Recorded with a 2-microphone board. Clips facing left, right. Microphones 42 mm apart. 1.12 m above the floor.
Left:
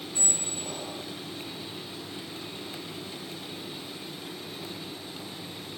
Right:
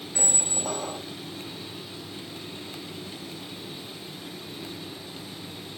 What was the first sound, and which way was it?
A squeak, 65° right (ahead or behind).